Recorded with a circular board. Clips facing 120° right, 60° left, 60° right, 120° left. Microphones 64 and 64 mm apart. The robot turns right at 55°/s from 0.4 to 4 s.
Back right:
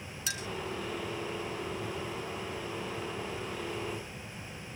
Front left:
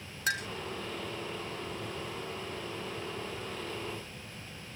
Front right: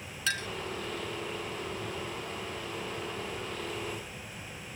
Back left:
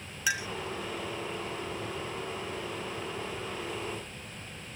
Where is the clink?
45° left, 0.7 m; by 0.5 s 50° left, 0.7 m.